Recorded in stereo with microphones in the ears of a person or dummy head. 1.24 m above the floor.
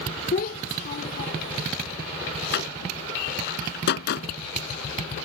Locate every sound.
0.3 s a child speaking: 55° left (ahead or behind)
2.5 s a door slam: 70° left (ahead or behind)